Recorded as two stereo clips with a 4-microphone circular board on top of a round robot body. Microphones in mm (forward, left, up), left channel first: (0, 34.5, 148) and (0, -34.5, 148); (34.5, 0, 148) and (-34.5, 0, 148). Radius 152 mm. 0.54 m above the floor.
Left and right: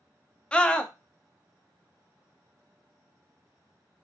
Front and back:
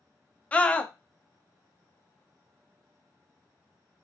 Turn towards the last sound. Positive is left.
turn(degrees=40)